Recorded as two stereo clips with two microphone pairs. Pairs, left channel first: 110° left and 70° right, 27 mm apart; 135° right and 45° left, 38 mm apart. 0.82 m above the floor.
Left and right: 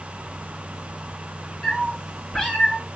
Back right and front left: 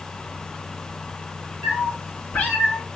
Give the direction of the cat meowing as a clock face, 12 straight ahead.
6 o'clock.